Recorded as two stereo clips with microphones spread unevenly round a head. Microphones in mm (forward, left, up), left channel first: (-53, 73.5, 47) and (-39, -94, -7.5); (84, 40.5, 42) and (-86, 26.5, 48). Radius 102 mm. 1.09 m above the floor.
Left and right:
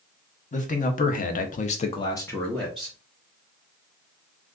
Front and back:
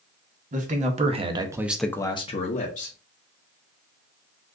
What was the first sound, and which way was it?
A man speaking, 145° left.